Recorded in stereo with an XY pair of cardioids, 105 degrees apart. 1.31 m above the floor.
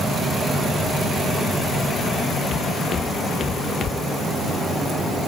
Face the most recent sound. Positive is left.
turn(degrees=55)